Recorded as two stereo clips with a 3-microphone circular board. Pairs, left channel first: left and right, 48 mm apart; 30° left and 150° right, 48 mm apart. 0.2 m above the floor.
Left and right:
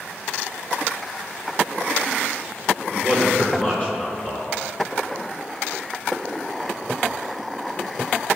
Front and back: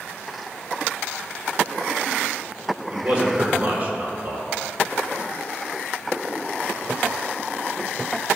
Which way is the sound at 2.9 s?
150° left.